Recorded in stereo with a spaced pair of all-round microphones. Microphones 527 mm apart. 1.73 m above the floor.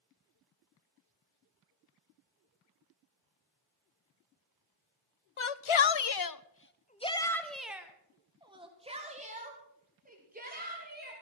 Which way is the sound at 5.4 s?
65° left (ahead or behind).